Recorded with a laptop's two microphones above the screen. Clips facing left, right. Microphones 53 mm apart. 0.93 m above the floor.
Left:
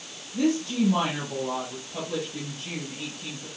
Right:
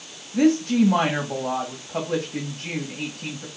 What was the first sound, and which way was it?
A woman speaking, 65° right (ahead or behind).